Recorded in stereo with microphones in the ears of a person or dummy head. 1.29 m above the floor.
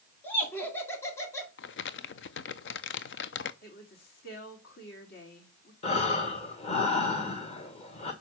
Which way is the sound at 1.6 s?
55° left (ahead or behind).